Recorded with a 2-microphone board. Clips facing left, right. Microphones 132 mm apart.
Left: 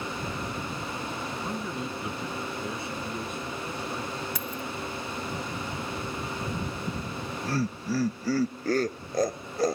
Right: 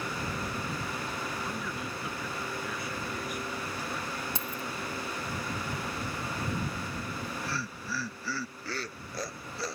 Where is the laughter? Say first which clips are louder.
Left 3 dB; 45° left (ahead or behind).